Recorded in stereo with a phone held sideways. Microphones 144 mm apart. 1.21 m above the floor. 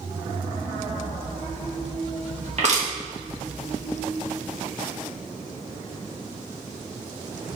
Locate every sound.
2.6 s crushing: 55° right (ahead or behind), 1.8 m